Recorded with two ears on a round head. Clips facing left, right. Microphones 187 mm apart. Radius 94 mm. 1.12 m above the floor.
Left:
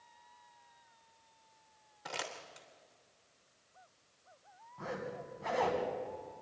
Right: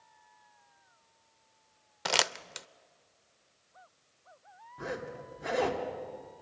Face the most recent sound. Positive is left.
turn(degrees=-20)  # may be behind; listen again after turning